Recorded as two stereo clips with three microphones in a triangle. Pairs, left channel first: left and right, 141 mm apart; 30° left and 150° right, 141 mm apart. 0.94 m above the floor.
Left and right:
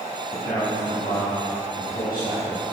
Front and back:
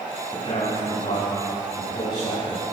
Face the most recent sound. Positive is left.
turn(degrees=90)